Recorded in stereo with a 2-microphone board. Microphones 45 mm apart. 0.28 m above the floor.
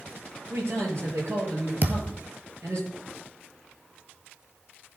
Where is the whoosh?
No whoosh in this recording.